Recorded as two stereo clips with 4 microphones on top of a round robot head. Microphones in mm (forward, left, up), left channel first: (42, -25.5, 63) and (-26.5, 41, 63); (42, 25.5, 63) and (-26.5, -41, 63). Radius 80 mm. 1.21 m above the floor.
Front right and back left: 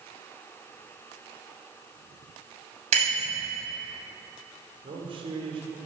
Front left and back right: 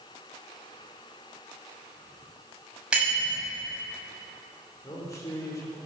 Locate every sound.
2.9 s a bicycle bell: 140° left, 6 m
4.8 s a man speaking: 105° left, 4 m